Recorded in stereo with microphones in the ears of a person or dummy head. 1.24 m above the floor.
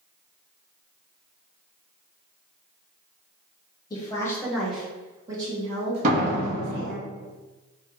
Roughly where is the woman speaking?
Left.